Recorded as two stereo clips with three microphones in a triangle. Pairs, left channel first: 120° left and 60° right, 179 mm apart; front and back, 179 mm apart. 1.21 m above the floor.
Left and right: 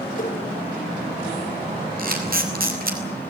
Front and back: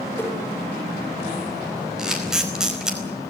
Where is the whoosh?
80° left, 6.5 m.